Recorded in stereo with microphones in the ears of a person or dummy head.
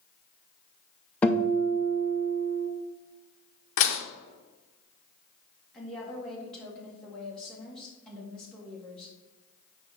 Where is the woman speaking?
5° left (ahead or behind), 2 m.